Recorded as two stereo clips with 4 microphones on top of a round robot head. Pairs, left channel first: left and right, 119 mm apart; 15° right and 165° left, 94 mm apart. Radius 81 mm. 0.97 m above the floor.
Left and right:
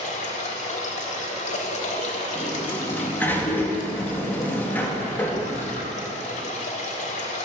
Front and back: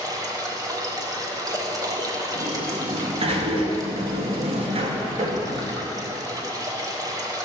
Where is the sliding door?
165° left, 1.6 m.